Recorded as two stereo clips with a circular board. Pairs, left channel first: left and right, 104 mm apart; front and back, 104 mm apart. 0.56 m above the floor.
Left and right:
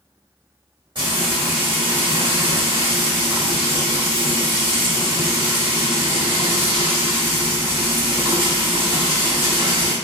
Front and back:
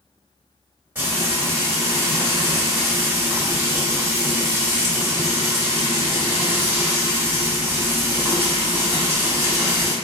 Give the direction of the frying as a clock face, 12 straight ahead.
4 o'clock.